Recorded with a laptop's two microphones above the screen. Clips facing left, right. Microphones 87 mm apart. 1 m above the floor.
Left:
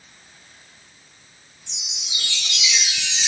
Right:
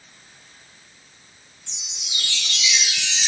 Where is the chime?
15° left (ahead or behind), 0.8 m.